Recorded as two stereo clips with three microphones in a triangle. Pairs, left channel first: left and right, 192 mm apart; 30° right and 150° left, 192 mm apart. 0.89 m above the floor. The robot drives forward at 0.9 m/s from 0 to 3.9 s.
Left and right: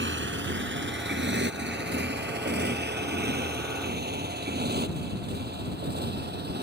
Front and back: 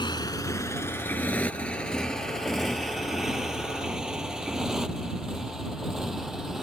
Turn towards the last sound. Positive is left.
turn(degrees=-120)